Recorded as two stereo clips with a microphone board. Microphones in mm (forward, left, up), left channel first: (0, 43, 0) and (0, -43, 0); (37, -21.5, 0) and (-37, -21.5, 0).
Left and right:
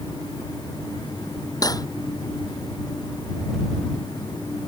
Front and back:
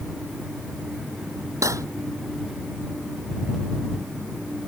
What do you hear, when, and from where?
1.6 s cutlery clinking: 135° left